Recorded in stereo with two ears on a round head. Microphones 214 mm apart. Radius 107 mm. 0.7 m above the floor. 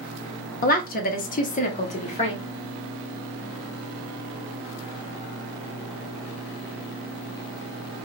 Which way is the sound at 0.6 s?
35° left (ahead or behind).